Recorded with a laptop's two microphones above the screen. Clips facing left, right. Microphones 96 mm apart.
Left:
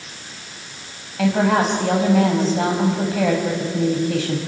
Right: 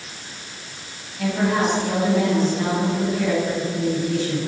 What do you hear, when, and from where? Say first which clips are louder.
1.2 s a woman speaking: left 3 dB; 80° left, 5 m